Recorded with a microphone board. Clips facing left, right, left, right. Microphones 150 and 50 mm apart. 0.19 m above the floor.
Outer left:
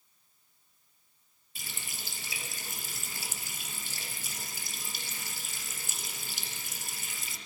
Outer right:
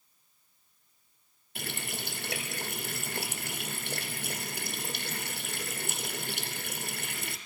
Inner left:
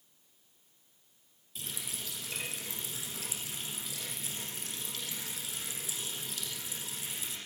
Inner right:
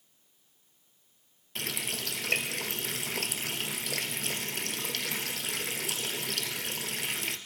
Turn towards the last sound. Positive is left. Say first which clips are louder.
# outer right 9 dB, inner right 8 dB
turn(degrees=-65)  # may be behind; listen again after turning